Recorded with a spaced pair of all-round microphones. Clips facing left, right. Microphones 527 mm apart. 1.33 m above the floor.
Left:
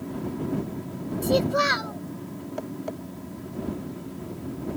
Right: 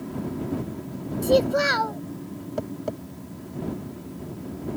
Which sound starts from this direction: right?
Tapping, at 2.6 s.